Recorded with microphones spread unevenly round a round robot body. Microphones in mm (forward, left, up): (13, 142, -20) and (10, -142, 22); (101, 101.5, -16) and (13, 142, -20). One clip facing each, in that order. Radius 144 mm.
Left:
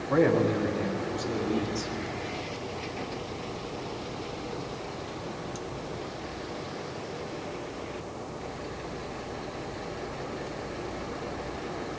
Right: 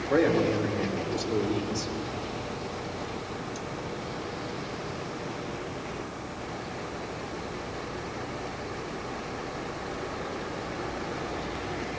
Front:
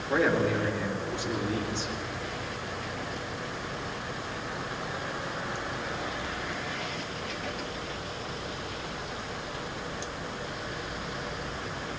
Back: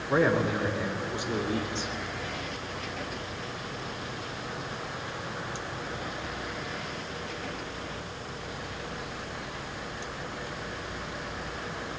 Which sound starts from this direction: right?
A man speaking, at 0.1 s.